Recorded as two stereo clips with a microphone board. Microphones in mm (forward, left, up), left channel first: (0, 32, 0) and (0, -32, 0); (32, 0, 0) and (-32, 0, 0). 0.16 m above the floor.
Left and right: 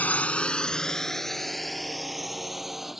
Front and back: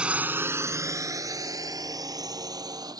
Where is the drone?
125° left; by 3.0 s 175° right.